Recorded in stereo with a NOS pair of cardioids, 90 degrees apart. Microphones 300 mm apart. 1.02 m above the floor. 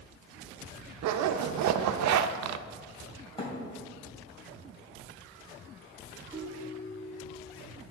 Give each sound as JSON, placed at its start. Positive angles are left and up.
{"t": 1.0, "sound": "a zipper", "azimuth_deg": -65, "distance_m": 0.5}
{"t": 3.4, "sound": "a thud", "azimuth_deg": 20, "distance_m": 3.0}
{"t": 6.3, "sound": "a ringtone", "azimuth_deg": 10, "distance_m": 3.0}